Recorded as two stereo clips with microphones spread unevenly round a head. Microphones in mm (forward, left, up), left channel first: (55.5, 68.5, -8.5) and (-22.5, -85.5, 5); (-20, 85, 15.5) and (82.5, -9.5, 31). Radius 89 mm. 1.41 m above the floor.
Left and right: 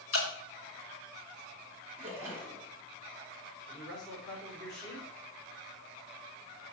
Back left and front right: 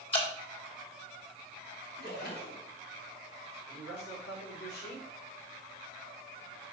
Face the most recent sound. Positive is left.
turn(degrees=150)